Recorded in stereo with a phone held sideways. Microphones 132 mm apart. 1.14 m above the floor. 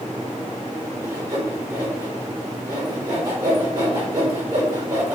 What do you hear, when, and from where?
1.0 s sawing: 30° right (ahead or behind), 4 m